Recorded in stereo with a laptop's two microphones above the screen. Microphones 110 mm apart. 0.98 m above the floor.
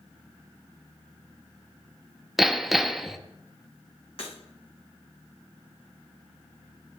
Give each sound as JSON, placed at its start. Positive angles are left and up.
{"t": 2.4, "sound": "hammering", "side_deg": -5, "distance_m": 0.8}
{"t": 4.2, "sound": "breaking glass", "side_deg": 55, "distance_m": 10.0}